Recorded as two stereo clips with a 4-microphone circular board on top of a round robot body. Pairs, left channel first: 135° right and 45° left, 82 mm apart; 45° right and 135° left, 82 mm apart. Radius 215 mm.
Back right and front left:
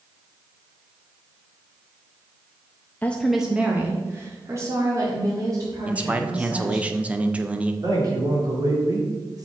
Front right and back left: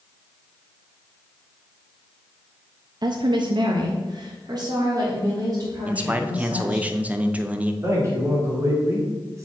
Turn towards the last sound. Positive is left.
turn(degrees=85)